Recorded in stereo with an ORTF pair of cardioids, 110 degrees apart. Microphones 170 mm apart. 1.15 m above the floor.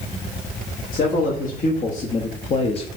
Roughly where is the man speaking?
Ahead left.